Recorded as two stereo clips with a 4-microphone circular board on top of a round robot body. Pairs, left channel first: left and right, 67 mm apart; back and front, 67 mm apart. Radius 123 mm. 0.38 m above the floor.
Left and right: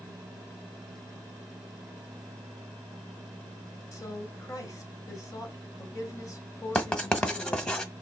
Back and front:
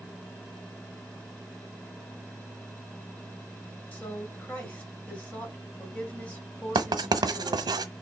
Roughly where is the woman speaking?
Left.